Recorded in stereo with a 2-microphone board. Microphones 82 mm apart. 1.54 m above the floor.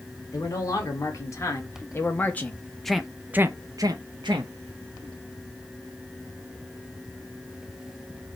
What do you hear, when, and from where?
0.3 s a man speaking: 45° left (ahead or behind), 2.0 m; by 4.5 s 70° right (ahead or behind), 0.9 m